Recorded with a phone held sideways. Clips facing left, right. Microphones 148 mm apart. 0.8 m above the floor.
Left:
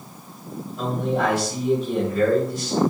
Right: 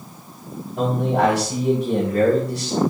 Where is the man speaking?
80° right, 5 m.